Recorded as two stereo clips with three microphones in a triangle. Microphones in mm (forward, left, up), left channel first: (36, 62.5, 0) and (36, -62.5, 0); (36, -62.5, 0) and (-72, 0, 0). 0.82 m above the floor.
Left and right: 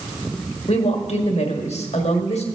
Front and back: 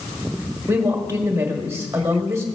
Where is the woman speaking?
85° left, 1.4 m.